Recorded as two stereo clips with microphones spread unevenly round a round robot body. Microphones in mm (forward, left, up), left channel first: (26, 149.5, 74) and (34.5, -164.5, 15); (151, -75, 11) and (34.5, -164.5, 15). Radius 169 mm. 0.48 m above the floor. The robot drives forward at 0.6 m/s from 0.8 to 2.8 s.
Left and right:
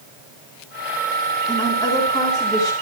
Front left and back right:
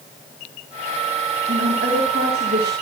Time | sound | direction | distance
1.5 | a woman speaking | 175° left | 4.5 m